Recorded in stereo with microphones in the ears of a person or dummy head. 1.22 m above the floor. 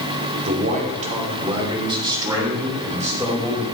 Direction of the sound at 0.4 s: 45° right (ahead or behind).